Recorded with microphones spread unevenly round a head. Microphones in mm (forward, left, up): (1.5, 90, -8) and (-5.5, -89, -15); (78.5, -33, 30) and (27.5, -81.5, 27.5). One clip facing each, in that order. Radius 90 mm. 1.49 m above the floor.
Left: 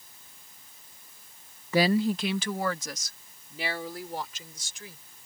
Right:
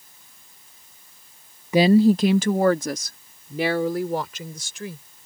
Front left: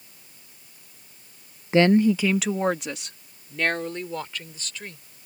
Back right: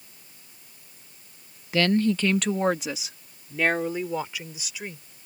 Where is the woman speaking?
15° right; by 5.0 s 55° right.